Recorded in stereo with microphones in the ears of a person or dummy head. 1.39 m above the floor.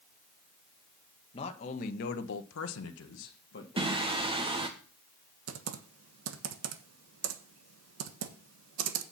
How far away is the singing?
About 1.2 m.